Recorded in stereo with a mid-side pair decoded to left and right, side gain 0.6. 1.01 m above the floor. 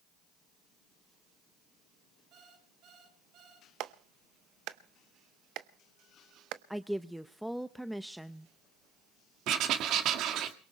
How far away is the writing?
About 1.8 m.